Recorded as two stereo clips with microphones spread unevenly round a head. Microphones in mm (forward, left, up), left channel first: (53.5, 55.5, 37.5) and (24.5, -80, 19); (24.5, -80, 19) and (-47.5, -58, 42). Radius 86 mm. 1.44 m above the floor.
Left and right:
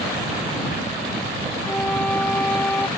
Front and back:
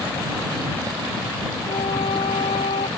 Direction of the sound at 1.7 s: 5° right.